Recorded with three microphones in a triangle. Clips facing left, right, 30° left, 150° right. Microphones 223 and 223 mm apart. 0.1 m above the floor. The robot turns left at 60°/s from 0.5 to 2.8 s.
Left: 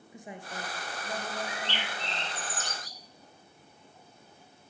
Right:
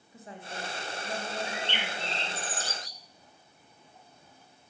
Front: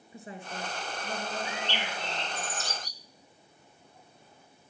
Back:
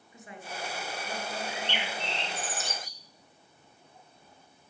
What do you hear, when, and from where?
0.1 s a woman speaking: 30° left, 1.3 m; by 2.5 s 90° right, 1.3 m
1.4 s a bird: 100° right, 0.9 m; by 3.0 s straight behind, 0.9 m